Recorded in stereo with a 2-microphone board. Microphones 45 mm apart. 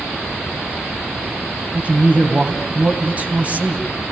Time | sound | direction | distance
1.7 | a man speaking | 30° right (ahead or behind) | 3 m